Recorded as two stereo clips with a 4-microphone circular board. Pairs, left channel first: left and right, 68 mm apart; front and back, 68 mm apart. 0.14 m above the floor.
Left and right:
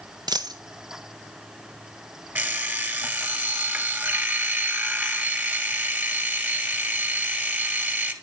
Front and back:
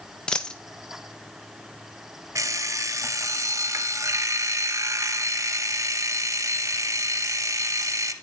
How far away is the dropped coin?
About 1.3 m.